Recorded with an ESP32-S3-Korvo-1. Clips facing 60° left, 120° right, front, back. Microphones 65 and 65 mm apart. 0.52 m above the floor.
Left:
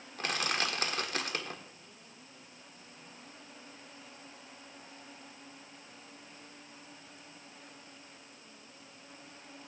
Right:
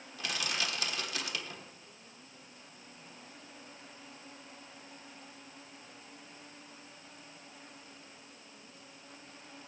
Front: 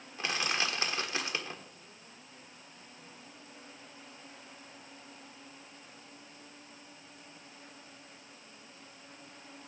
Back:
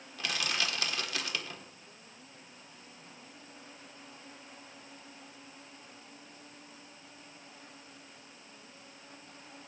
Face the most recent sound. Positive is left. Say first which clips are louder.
# left 3 dB, front 2 dB
turn(degrees=50)